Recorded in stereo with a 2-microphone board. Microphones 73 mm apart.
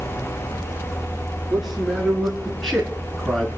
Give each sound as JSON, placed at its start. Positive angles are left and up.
{"t": 1.5, "sound": "a man speaking", "side_deg": 0, "distance_m": 6.0}